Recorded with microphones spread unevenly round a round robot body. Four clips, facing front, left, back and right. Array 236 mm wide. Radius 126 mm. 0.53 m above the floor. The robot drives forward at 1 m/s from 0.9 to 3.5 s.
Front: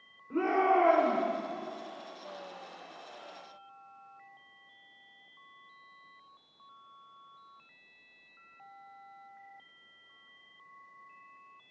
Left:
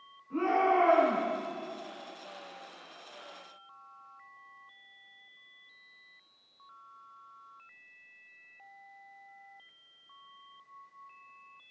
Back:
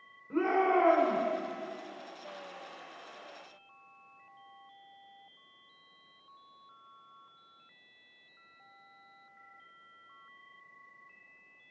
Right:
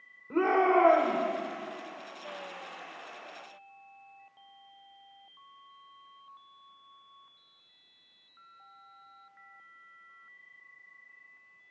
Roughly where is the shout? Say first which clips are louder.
Right 2 dB, front 1 dB; right.